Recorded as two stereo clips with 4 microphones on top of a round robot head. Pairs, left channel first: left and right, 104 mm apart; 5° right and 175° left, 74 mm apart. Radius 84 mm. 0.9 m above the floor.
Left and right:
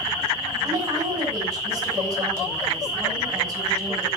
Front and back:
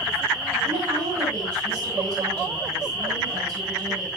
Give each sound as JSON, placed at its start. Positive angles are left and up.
{"t": 0.6, "sound": "a woman speaking", "azimuth_deg": -145, "distance_m": 6.5}